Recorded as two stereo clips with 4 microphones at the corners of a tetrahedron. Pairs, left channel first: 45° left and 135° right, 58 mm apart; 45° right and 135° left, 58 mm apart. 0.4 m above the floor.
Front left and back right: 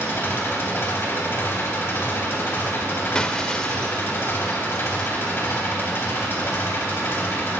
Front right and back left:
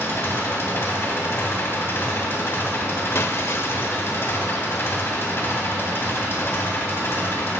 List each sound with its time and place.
0.0 s an engine running: straight ahead, 2.5 m
3.1 s breaking glass: 30° right, 0.8 m